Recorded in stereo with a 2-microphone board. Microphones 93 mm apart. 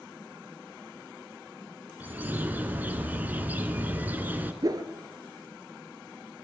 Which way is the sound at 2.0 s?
20° right (ahead or behind).